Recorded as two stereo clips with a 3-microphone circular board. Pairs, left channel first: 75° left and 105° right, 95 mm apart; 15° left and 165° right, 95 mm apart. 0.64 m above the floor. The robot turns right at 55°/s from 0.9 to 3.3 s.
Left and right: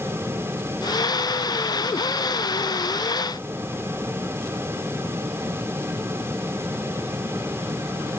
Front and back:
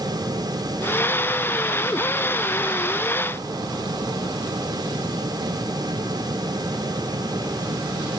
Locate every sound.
Only background noise.